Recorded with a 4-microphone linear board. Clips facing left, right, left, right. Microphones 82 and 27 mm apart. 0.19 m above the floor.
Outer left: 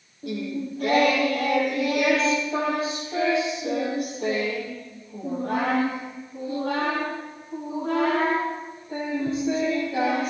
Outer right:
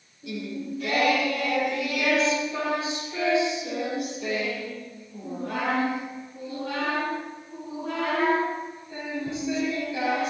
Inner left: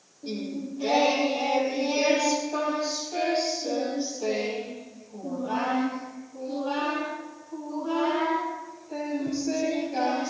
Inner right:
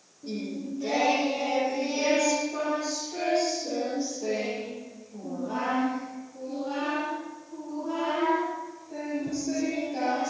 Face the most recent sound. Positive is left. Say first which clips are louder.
# outer left 3 dB, inner left 1 dB
turn(degrees=45)  # may be behind; listen again after turning